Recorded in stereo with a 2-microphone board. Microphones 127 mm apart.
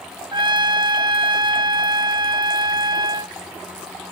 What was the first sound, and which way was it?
A trumpet, 35° right (ahead or behind).